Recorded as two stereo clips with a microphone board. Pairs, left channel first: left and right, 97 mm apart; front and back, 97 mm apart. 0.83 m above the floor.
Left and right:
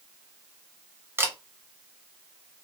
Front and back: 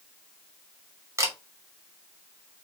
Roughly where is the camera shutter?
Behind right.